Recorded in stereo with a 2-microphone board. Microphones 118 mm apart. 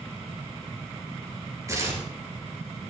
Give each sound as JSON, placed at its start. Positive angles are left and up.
{"t": 1.7, "sound": "tearing paper", "side_deg": -25, "distance_m": 4.0}